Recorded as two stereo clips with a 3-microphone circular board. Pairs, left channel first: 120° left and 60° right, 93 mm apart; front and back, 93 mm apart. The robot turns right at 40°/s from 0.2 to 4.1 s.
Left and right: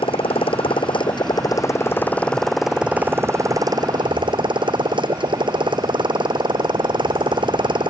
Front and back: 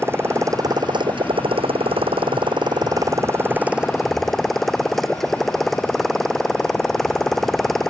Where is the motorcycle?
115° left; by 7.9 s 90° right.